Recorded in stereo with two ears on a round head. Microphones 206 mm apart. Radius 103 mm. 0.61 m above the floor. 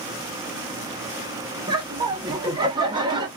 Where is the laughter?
20° right (ahead or behind), 0.6 m.